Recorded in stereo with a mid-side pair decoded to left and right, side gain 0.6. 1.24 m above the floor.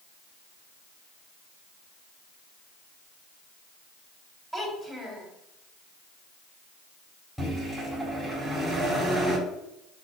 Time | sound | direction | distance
4.5 | a child speaking | 10° right | 4 m
7.4 | a microwave | 5° right | 4 m